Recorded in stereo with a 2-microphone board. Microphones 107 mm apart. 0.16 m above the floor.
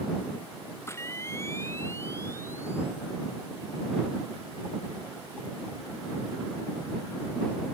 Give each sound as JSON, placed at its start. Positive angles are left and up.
{"t": 0.9, "sound": "a camera shutter", "side_deg": 25}